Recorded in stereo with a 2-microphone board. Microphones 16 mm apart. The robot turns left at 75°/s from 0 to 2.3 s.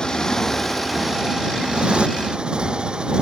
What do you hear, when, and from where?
0.0 s a motorcycle: 60° left; by 3.2 s 110° right